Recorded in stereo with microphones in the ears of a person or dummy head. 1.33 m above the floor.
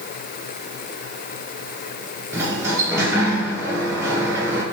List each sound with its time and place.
2.3 s a sliding door: 10° right (ahead or behind), 0.8 m